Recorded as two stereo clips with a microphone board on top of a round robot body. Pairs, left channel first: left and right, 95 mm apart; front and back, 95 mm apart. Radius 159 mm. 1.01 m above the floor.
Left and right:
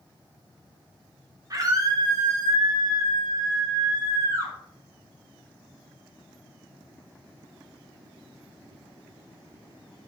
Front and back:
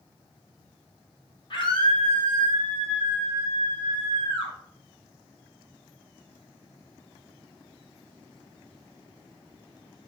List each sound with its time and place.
1.5 s a scream: 40° right, 4 m; by 4.5 s 35° right, 6 m